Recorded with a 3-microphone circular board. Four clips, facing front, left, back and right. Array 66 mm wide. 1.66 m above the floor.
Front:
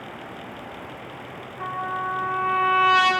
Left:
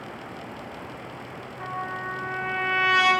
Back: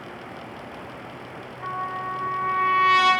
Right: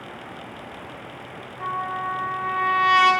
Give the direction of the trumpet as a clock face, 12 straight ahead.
11 o'clock.